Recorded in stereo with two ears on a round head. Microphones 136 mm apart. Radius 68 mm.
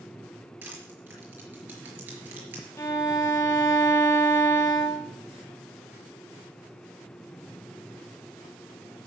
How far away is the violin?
About 1.2 m.